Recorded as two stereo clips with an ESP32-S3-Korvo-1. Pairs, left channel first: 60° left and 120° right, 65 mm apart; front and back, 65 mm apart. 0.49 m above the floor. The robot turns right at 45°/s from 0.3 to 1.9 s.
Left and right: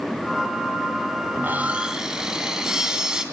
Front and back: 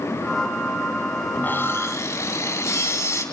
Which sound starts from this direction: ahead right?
Sawing, at 1.3 s.